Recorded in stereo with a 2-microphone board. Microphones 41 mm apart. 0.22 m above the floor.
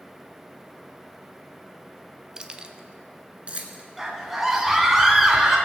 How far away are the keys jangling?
About 0.7 m.